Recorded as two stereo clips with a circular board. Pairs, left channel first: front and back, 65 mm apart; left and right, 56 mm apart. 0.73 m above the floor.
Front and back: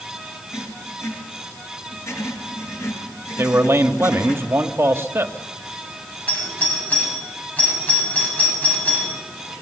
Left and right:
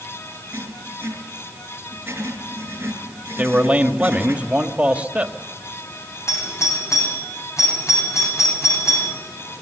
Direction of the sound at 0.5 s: 40° right.